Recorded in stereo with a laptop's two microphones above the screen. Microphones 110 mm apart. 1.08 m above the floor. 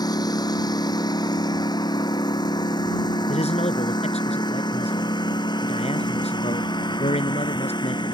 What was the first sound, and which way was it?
A lawn mower, 35° left (ahead or behind).